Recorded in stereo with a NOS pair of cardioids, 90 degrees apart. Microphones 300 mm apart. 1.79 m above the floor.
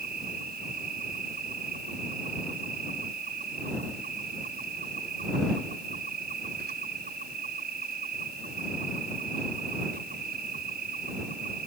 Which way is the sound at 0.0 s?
30° right.